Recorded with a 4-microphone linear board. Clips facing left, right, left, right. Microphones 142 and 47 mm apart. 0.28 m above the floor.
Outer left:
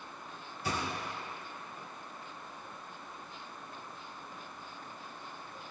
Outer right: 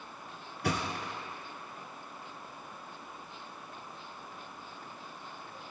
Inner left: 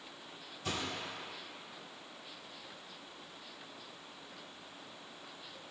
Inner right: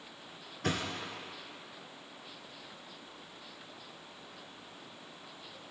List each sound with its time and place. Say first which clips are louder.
0.6 s a thud: outer right 3 dB, inner right 4 dB; 75° right (ahead or behind), 2 m